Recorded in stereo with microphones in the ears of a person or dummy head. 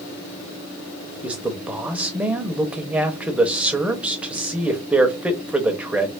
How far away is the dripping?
No dripping in this recording.